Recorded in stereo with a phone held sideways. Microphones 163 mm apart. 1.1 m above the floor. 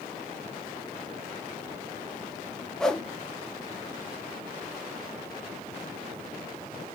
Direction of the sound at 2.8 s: 5° left (ahead or behind).